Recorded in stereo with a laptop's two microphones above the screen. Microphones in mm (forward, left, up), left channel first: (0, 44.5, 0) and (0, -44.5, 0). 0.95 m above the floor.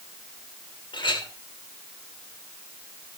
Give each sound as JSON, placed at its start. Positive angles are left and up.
{"t": 0.9, "sound": "a clink", "side_deg": 65, "distance_m": 2.5}